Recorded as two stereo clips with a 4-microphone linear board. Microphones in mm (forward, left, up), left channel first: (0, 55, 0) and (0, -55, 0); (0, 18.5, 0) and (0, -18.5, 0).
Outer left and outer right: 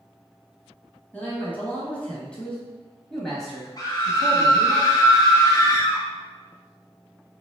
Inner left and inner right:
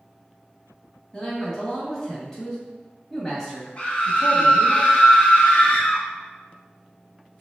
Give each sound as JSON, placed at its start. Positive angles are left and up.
{"t": 1.1, "sound": "a man speaking", "side_deg": 20, "distance_m": 1.5}
{"t": 3.8, "sound": "a scream", "side_deg": 35, "distance_m": 1.3}